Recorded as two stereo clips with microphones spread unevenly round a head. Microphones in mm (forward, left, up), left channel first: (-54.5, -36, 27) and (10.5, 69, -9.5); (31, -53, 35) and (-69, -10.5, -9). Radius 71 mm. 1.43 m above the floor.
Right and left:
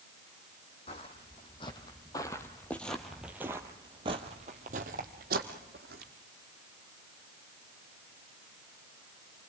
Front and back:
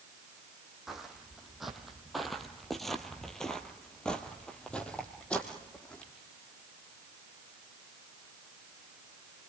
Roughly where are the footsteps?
Right.